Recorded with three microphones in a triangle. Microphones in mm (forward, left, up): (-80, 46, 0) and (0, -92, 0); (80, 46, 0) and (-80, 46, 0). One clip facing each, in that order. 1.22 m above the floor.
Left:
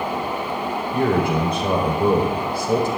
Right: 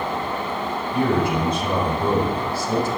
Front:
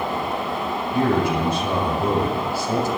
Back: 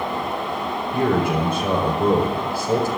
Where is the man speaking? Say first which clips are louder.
Left 1 dB, even; 145° left, 4.5 m.